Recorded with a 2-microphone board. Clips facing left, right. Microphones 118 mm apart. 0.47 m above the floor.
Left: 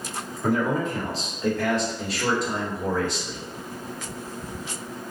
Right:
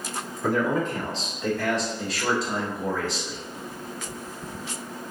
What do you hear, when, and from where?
0.4 s a man speaking: 10° left (ahead or behind), 1.5 m; by 3.4 s 5° right (ahead or behind), 1.5 m